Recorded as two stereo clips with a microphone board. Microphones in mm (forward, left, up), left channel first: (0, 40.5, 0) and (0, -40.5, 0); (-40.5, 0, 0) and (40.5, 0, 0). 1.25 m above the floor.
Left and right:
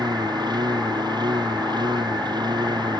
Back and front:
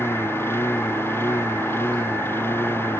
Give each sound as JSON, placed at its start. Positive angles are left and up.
{"t": 0.0, "sound": "a lawn mower", "azimuth_deg": -120}